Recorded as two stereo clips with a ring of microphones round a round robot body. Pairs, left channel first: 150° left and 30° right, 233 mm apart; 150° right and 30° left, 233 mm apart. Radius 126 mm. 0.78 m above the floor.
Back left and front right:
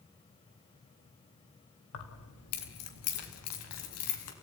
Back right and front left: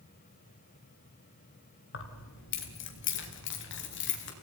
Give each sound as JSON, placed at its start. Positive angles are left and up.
{"t": 1.9, "sound": "keys jangling", "azimuth_deg": 175, "distance_m": 3.0}